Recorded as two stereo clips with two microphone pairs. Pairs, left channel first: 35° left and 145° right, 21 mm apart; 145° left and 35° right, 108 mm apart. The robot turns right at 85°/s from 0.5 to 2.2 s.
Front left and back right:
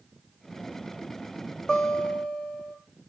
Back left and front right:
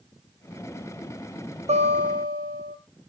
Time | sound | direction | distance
1.7 | a guitar | 30° right | 5 m